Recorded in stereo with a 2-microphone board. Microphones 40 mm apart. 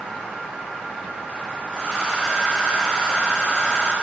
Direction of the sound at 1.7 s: 15° right (ahead or behind).